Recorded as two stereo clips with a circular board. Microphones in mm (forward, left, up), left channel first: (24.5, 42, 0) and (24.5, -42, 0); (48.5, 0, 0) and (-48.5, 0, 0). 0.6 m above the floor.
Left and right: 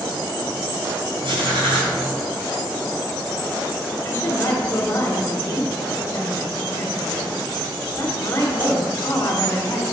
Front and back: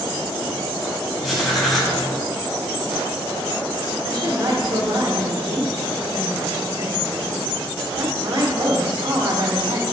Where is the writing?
90° right, 2.5 m.